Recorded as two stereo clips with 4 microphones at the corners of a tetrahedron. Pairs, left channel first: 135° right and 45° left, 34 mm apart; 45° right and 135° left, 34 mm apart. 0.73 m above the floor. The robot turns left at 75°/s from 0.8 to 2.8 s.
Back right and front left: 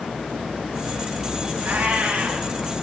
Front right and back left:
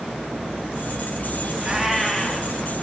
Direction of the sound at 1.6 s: 65° left.